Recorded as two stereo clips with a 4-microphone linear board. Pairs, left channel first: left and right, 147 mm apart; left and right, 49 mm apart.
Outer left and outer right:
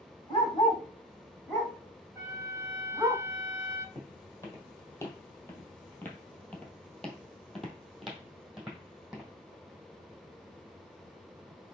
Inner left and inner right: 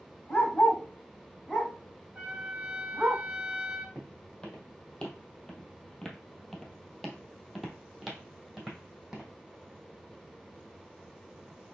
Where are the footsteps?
20° left (ahead or behind), 1.6 m; by 9.3 s 5° right (ahead or behind), 1.9 m.